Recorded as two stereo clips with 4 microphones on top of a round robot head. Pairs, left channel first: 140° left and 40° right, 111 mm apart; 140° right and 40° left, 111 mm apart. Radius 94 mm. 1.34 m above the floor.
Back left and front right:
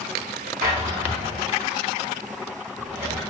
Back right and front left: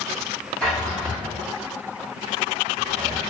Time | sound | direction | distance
0.6 | a drawer | 60° right | 1.9 m